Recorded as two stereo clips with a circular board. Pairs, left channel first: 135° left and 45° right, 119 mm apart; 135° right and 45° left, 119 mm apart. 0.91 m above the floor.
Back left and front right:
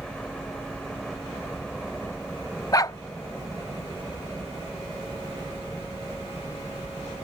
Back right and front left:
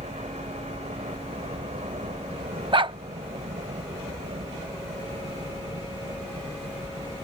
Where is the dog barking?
80° left.